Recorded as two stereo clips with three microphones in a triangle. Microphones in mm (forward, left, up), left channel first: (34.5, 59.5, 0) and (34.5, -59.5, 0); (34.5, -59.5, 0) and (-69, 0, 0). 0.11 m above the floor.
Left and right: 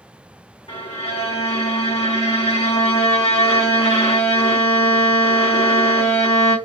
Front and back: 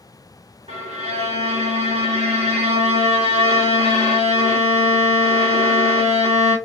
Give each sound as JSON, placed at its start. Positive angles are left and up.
{"t": 0.7, "sound": "a violin", "azimuth_deg": 120, "distance_m": 1.3}